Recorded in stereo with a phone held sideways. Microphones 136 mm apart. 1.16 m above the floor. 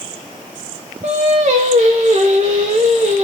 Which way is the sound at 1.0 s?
55° right (ahead or behind).